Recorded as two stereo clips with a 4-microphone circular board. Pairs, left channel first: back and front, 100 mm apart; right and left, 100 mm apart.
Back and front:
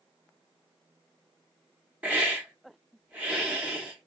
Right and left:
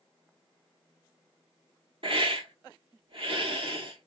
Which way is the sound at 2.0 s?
75° left.